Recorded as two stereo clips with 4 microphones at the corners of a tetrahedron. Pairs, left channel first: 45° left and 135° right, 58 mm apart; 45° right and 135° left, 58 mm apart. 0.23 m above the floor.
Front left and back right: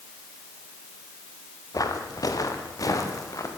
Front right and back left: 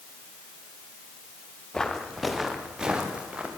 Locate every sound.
1.7 s footsteps: 35° left, 3 m; by 3.5 s 70° left, 4.5 m